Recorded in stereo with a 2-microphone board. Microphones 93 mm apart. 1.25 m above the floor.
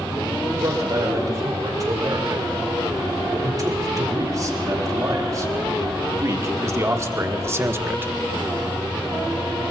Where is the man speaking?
40° right (ahead or behind), 6 m; by 8.1 s 25° right (ahead or behind), 1.3 m.